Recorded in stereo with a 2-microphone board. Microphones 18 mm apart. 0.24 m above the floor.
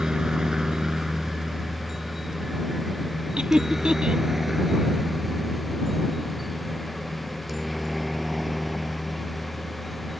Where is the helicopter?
40° right (ahead or behind); by 10.2 s centre (ahead or behind).